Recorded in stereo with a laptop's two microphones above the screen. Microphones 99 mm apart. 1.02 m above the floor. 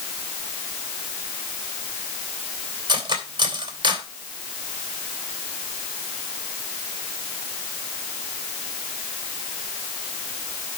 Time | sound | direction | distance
2.9 | cutlery clinking | 45° right (ahead or behind) | 3 m